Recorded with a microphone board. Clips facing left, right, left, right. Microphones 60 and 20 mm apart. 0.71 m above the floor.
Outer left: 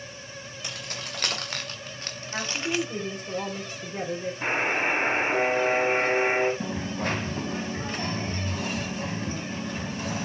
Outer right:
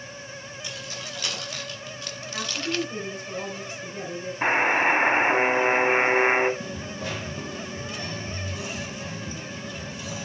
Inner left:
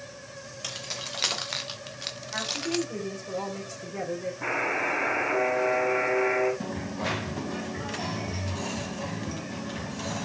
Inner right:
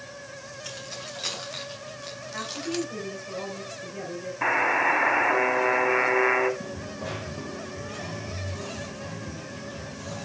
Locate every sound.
0.6 s keys jangling: 60° left (ahead or behind), 3 m; by 2.9 s 5° left (ahead or behind), 0.8 m
2.3 s a woman speaking: 40° left (ahead or behind), 3 m
4.4 s a buzzer: 45° right (ahead or behind), 3 m
6.6 s a dropped coin: 50° left (ahead or behind), 1.4 m